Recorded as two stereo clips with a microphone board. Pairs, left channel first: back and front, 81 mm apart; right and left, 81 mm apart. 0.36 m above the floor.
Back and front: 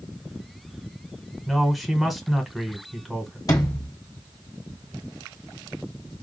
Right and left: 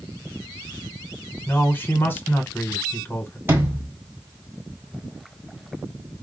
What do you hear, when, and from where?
1.5 s a man speaking: 90° right, 1.1 m
3.5 s a sliding door: 150° left, 1.8 m